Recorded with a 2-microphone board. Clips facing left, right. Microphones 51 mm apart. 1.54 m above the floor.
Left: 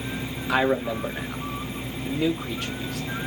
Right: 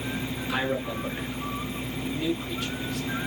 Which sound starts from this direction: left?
A man speaking, at 0.5 s.